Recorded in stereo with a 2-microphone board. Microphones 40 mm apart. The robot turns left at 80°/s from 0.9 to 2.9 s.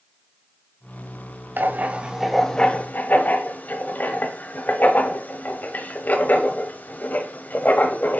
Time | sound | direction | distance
1.6 | writing | 60° right (ahead or behind) | 1.0 m